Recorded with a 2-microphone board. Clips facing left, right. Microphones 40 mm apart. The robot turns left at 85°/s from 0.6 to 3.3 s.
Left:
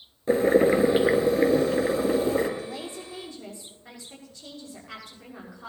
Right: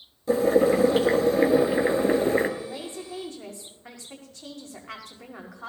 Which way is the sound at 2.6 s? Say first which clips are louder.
Even; 15° right.